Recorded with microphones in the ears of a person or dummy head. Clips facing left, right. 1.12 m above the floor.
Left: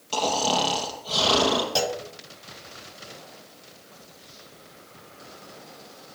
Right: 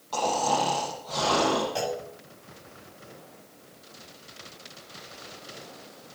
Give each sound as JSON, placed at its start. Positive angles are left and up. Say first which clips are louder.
{"t": 0.1, "sound": "snoring", "louder": "left 1 dB", "side_deg": 45, "distance_m": 5.0}
{"t": 1.8, "sound": "a clunk", "louder": "left 3 dB", "side_deg": 60, "distance_m": 1.4}